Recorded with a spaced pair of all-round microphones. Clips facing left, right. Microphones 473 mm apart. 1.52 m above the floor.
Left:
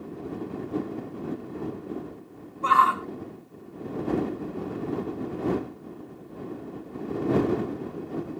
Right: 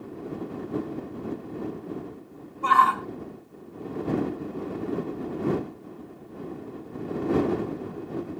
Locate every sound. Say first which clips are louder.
2.6 s a shout: right 1 dB; 5° right (ahead or behind)